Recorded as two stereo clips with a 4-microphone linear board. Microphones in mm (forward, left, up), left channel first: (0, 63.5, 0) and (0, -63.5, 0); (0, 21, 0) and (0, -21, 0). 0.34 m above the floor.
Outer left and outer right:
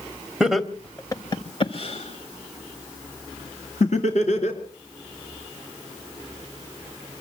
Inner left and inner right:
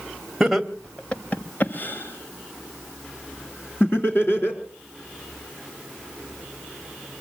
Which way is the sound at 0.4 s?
5° right (ahead or behind).